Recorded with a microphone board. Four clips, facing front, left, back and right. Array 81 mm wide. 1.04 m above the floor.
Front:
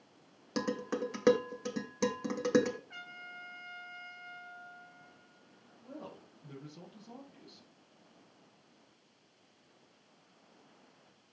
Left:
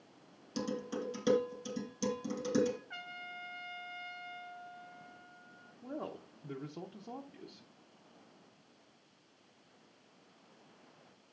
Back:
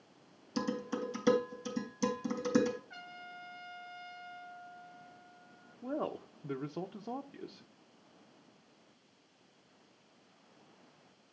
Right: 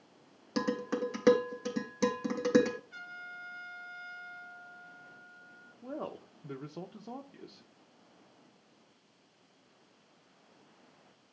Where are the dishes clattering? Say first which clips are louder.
Right 6 dB, front 1 dB; 40° right, 2.5 m.